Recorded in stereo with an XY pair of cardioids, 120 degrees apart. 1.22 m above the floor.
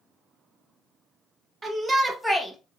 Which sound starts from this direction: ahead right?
A shout, at 1.6 s.